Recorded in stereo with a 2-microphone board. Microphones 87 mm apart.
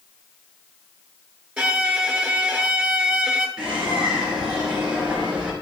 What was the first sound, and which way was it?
A violin, 15° right (ahead or behind).